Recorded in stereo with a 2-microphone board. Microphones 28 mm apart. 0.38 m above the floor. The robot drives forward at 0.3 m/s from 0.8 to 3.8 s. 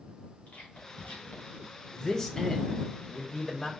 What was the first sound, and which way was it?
Whispering, 65° left (ahead or behind).